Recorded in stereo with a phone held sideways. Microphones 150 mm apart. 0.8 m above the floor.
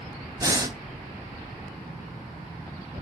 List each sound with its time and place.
0.4 s breathing: 25° right (ahead or behind), 0.7 m